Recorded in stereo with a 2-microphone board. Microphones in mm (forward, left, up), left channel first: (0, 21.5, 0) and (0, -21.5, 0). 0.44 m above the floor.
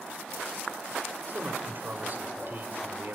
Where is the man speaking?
45° right (ahead or behind), 1.3 m.